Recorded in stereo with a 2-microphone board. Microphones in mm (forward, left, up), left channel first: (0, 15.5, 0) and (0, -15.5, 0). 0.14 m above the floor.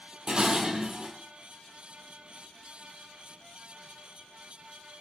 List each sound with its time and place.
0.3 s dishes clattering: 30° right (ahead or behind), 2.5 m